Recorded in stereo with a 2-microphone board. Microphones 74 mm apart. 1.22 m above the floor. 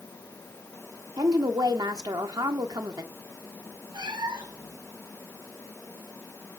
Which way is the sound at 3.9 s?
75° right (ahead or behind).